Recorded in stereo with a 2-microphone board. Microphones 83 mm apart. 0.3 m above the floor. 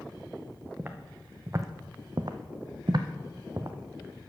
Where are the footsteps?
25° right (ahead or behind), 0.9 m; by 3.8 s 35° right (ahead or behind), 0.9 m.